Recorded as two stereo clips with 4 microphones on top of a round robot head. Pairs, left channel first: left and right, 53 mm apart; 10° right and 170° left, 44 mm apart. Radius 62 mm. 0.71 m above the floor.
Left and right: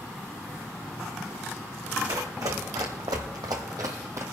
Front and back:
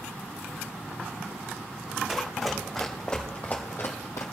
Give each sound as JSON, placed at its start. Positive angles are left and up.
{"t": 2.1, "sound": "running footsteps", "azimuth_deg": -105, "distance_m": 2.5}